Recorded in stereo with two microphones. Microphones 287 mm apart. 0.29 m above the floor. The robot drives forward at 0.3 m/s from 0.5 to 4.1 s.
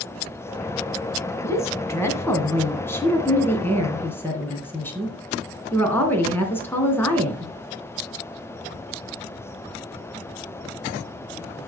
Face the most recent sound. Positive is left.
turn(degrees=5)  # may be behind; listen again after turning